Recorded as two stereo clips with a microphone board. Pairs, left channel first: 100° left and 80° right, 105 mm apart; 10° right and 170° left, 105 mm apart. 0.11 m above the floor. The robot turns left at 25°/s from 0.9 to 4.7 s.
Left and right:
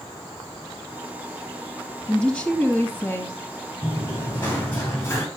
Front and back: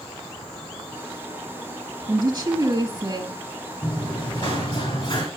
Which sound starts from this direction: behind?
A woman speaking, at 2.1 s.